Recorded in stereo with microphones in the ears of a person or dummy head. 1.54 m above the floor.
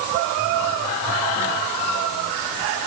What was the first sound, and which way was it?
Only background noise.